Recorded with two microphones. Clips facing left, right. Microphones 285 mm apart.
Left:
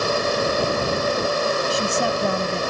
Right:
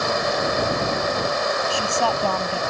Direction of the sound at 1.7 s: 20° left (ahead or behind).